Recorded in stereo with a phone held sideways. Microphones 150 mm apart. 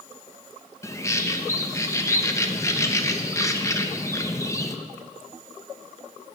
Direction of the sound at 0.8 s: 20° left (ahead or behind).